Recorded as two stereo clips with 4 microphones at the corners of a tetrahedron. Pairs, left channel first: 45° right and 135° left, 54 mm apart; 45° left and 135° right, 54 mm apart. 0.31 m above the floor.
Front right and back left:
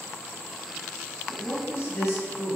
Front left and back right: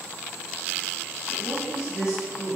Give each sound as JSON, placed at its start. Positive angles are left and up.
{"t": 1.3, "sound": "a woman speaking", "azimuth_deg": -65, "distance_m": 2.5}